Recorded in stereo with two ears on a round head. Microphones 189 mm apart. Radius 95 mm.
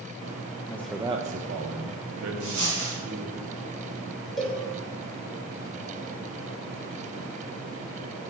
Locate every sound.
0.7 s a man speaking: 15° left (ahead or behind), 0.6 m; by 3.4 s 70° right (ahead or behind), 2 m
2.4 s a dropped coin: 85° right, 4 m
4.4 s a cowbell: centre (ahead or behind), 3 m